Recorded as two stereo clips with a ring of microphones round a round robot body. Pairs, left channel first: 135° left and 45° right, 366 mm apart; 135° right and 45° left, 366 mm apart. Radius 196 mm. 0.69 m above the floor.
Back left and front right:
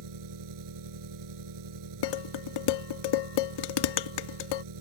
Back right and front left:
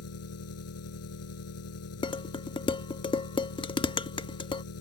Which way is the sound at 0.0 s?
85° right.